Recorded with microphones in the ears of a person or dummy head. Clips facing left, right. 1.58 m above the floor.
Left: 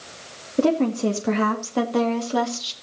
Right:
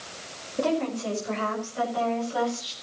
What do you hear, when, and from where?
0.6 s a woman speaking: 35° left (ahead or behind), 2.0 m; by 2.7 s 65° left (ahead or behind), 3 m